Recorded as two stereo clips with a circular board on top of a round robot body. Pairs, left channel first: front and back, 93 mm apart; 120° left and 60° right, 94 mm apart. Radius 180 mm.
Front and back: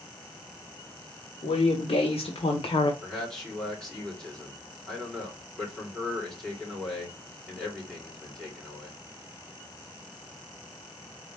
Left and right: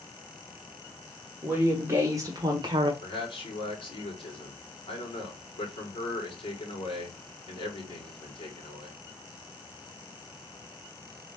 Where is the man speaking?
85° left, 2.5 m.